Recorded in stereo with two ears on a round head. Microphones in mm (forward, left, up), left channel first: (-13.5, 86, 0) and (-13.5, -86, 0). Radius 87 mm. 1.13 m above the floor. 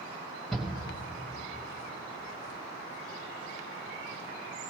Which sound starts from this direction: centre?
A shout, at 0.5 s.